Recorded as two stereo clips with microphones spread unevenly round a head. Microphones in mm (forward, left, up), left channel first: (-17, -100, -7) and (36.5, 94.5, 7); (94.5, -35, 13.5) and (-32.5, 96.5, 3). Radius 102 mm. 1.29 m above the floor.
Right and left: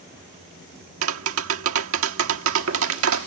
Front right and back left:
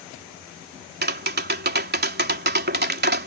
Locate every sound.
1.0 s tapping: 100° left